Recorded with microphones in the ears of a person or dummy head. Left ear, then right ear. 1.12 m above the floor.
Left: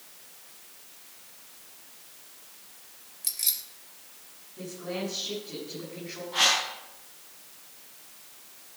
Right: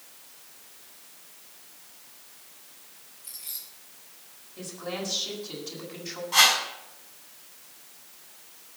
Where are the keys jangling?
55° left (ahead or behind), 3.5 m.